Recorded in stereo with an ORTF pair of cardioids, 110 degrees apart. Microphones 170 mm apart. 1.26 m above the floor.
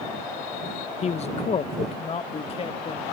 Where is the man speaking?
40° left; by 3.0 s 35° left.